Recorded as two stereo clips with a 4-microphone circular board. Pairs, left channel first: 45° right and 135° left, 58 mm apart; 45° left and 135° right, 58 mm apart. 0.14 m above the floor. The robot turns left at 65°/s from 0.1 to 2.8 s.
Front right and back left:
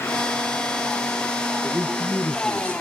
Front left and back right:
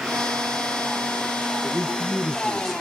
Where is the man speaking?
15° left, 1.8 m; by 2.8 s 65° right, 1.8 m.